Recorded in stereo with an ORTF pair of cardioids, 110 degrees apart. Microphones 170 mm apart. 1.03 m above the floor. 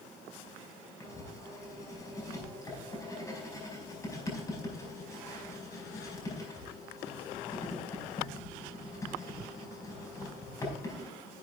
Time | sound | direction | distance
1.0 | writing | 20° left | 5 m